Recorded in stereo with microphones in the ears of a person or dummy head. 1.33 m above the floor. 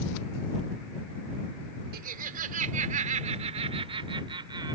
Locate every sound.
1.9 s laughter: 55° right (ahead or behind); by 4.8 s 25° right (ahead or behind)